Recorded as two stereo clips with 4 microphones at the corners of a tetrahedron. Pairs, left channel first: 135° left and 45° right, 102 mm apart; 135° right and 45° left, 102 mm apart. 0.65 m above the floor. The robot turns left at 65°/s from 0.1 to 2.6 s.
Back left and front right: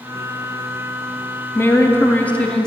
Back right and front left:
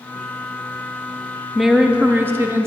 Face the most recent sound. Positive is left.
turn(degrees=65)